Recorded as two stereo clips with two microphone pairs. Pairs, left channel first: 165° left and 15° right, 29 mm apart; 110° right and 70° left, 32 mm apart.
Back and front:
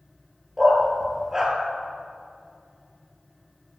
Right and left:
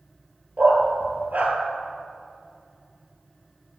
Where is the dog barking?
65° left, 1.1 m.